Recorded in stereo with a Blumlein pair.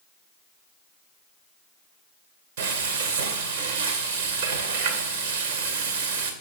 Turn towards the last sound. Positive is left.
turn(degrees=-55)